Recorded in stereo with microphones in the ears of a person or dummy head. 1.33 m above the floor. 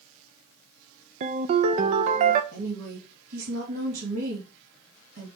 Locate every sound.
1.2 s a ringtone: 40° right (ahead or behind), 0.7 m
2.5 s a woman speaking: 75° right (ahead or behind), 3 m